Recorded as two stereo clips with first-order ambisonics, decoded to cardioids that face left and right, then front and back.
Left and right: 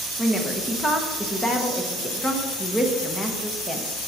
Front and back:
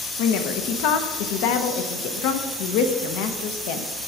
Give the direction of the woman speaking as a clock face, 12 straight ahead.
12 o'clock.